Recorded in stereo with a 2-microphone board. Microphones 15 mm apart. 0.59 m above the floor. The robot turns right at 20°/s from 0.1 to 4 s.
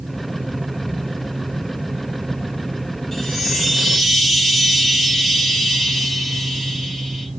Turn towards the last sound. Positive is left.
turn(degrees=-10)  # may be behind; listen again after turning